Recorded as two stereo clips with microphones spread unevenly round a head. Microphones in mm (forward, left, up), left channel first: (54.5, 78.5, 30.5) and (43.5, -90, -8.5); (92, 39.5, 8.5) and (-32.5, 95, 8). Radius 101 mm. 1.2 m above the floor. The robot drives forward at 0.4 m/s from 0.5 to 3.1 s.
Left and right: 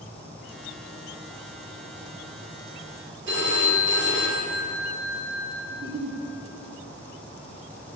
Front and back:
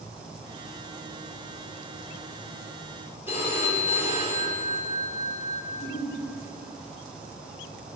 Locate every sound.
3.3 s a phone ringing: 125° right, 3 m
5.7 s a giggle: 70° right, 2 m